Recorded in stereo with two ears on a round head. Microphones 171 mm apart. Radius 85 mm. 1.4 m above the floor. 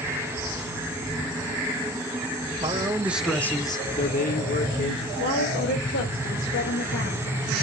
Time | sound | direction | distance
2.6 | a man speaking | 20° right (ahead or behind) | 1.2 m
5.2 | a woman speaking | 80° left | 2.5 m